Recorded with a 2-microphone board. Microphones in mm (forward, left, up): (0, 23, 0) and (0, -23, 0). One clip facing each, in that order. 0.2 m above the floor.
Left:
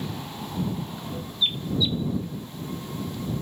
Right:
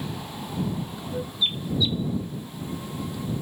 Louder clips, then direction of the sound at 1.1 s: Right 4 dB; 40° right (ahead or behind).